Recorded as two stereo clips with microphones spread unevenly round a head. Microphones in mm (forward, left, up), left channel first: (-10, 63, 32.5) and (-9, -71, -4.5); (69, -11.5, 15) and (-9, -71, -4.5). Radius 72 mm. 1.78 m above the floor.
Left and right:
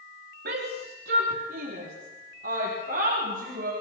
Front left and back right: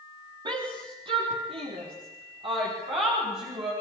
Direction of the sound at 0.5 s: 105° right.